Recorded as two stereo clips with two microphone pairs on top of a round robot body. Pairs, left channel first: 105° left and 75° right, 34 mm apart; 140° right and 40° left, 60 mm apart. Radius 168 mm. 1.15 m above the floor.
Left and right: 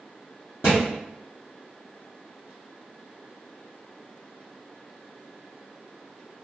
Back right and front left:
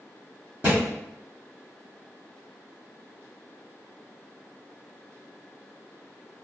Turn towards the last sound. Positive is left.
turn(degrees=90)